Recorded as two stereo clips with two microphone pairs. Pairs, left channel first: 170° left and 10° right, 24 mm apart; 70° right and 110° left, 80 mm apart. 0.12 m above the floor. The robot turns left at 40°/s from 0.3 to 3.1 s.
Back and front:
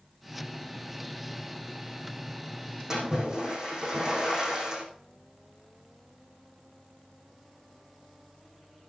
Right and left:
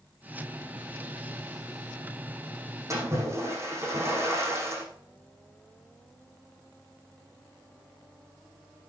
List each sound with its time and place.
2.9 s a splash: 60° left, 6 m; by 4.8 s 55° left, 6 m